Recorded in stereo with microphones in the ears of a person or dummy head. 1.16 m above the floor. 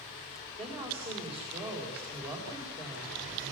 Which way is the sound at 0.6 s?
30° right (ahead or behind).